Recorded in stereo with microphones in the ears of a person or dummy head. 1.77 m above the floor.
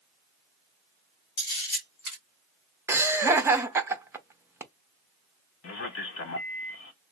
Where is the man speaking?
70° left (ahead or behind), 1.0 m.